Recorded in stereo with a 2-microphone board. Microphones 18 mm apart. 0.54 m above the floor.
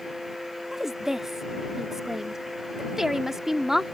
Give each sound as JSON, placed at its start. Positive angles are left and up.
{"t": 0.7, "sound": "a woman speaking", "side_deg": -20}